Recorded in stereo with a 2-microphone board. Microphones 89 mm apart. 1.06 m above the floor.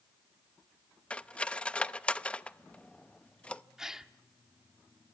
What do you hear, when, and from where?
1.1 s cutlery clinking: 15° left (ahead or behind), 0.6 m
3.8 s a gasp: 5° right (ahead or behind), 0.9 m